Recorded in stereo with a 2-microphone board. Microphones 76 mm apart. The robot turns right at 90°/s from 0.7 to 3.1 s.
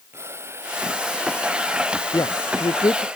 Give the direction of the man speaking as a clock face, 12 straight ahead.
10 o'clock.